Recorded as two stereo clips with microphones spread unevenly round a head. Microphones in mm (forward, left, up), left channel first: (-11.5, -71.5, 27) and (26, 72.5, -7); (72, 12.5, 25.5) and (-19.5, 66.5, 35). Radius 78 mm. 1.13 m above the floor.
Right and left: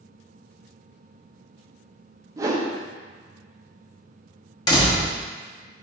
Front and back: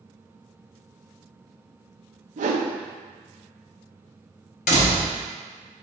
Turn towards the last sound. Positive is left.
turn(degrees=-45)